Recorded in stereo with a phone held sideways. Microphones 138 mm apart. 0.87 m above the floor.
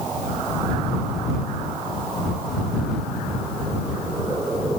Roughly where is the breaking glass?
No breaking glass in this recording.